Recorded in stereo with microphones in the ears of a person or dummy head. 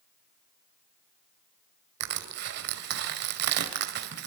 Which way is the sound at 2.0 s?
60° right (ahead or behind).